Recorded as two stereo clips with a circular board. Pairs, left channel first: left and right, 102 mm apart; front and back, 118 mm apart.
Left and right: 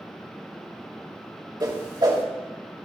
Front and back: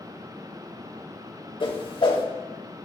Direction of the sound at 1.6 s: 45° right.